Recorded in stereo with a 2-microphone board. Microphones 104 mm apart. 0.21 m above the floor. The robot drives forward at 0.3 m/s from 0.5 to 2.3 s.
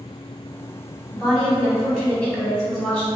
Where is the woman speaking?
10° left (ahead or behind), 0.9 m; by 3.1 s 5° left (ahead or behind), 1.1 m.